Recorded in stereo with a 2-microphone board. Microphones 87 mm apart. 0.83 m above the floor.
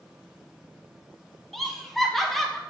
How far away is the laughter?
About 0.6 m.